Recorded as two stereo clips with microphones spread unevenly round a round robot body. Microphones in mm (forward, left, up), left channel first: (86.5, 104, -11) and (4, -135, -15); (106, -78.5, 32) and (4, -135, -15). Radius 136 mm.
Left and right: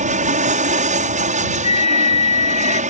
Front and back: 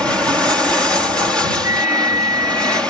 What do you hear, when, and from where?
0.0 s an aircraft: 85° right
1.6 s a flute: 5° left